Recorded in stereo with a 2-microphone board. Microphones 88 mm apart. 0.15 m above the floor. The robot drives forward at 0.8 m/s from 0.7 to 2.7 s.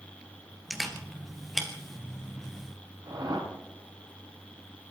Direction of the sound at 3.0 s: 60° right (ahead or behind).